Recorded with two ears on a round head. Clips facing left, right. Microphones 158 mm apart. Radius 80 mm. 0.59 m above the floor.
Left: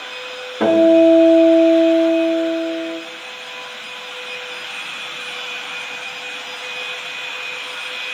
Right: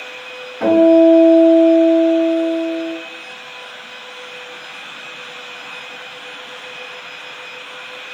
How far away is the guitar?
About 1.0 m.